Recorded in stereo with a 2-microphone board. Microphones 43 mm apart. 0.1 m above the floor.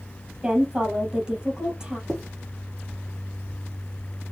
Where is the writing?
10° left (ahead or behind), 3.5 m.